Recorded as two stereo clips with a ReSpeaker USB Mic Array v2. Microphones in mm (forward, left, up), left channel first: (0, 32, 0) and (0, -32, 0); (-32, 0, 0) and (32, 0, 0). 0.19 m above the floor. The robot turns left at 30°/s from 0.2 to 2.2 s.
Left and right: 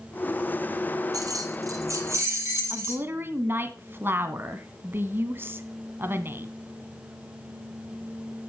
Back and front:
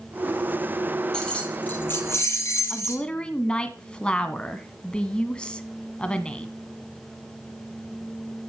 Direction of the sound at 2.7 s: 115° right.